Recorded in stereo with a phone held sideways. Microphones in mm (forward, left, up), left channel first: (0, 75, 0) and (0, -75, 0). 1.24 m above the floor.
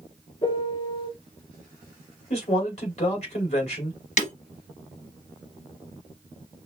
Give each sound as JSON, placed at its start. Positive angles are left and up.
{"t": 0.4, "sound": "a piano", "side_deg": 30, "distance_m": 3.0}
{"t": 2.3, "sound": "a man speaking", "side_deg": 45, "distance_m": 2.5}
{"t": 4.2, "sound": "breaking glass", "side_deg": 50, "distance_m": 1.7}